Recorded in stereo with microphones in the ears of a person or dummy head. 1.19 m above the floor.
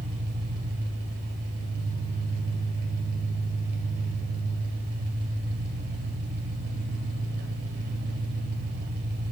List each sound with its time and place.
0.0 s an engine running: 60° right (ahead or behind), 2 m